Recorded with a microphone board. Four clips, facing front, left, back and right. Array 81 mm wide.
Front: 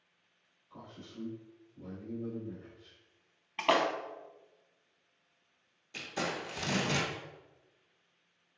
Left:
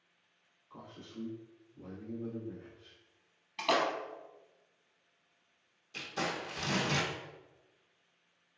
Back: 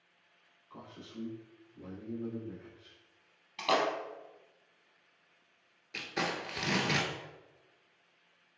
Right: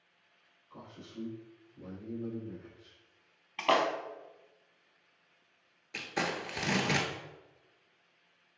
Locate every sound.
0.7 s a man speaking: 170° left, 1.7 m
3.6 s a splash: 35° right, 0.5 m
5.9 s crumpling: 115° right, 0.7 m